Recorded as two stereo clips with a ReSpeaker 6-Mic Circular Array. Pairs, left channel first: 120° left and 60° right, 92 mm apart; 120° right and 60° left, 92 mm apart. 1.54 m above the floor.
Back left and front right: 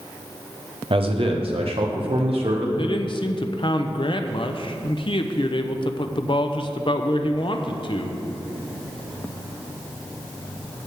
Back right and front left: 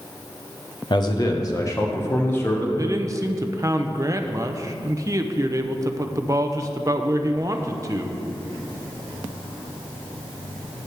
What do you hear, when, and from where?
0.9 s a man speaking: 80° right, 1.1 m; by 2.7 s 50° right, 2 m
2.8 s a man speaking: 110° left, 0.7 m